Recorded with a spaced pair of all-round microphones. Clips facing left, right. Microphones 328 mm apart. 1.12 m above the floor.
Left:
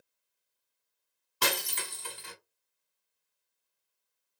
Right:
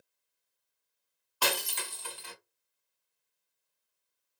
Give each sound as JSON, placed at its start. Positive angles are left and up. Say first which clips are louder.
{"t": 1.4, "sound": "breaking glass", "louder": "even", "side_deg": 30, "distance_m": 0.9}